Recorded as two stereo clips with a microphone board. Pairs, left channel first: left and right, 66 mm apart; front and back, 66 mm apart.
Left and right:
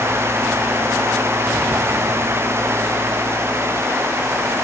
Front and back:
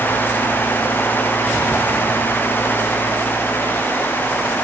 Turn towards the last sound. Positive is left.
No sound to turn to.